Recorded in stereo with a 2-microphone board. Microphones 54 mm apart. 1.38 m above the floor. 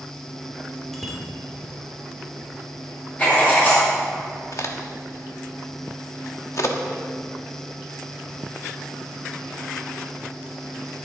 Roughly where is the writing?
Left.